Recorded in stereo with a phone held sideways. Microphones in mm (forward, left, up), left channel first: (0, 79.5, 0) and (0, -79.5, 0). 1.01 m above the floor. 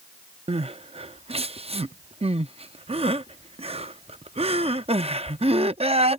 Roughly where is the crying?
Right.